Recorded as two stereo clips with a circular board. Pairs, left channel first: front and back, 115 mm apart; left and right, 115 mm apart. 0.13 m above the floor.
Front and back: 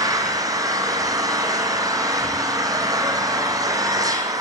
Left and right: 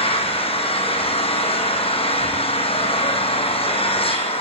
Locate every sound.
0.0 s an engine running: 120° left, 3.5 m